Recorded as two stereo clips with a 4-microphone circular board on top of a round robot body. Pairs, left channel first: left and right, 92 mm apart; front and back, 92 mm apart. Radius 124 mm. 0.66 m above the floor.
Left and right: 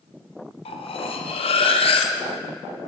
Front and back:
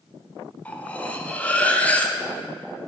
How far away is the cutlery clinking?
About 0.5 m.